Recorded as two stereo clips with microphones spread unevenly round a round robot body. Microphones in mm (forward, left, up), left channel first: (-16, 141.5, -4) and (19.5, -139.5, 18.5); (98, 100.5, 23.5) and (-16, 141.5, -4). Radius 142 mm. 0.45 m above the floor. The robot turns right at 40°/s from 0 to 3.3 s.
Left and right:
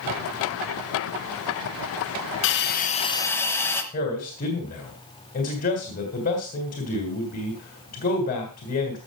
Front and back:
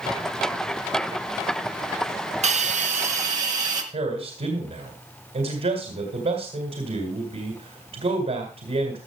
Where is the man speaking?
155° left, 2.5 m.